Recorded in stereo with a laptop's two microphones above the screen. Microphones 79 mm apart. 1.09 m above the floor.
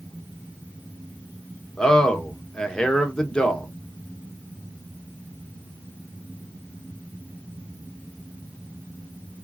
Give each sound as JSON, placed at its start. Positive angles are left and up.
{"t": 1.8, "sound": "a man speaking", "side_deg": 10, "distance_m": 0.9}